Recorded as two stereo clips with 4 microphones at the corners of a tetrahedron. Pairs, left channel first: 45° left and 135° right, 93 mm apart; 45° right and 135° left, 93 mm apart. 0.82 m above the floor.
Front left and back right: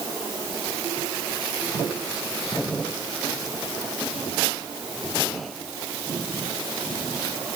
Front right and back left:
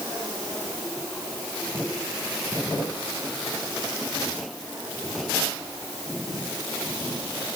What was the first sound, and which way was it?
Only background noise.